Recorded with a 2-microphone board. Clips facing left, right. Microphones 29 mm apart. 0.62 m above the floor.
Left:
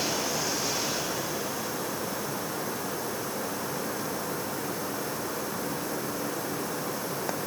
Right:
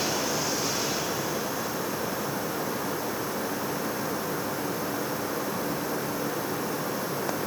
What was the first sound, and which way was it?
Only background noise.